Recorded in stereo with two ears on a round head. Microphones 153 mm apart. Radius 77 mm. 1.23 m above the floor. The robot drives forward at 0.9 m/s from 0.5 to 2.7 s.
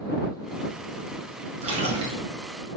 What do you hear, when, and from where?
1.6 s a splash: 40° right (ahead or behind), 2 m; by 2.2 s 35° right (ahead or behind), 2.5 m